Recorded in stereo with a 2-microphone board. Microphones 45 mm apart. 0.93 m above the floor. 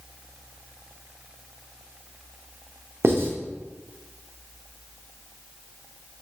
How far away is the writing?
About 0.9 m.